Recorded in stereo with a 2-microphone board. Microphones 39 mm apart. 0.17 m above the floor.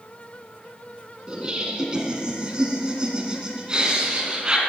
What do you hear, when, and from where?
1.3 s laughter: 25° right (ahead or behind), 1.4 m